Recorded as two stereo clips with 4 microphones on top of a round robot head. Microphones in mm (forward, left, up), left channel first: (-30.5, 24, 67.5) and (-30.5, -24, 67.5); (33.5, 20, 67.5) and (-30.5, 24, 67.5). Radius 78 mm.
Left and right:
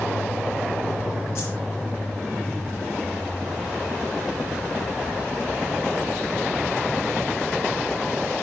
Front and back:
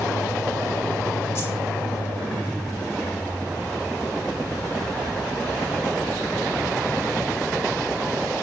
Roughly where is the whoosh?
Ahead left.